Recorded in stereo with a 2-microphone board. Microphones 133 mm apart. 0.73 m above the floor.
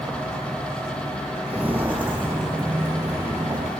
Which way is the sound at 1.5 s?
10° right (ahead or behind).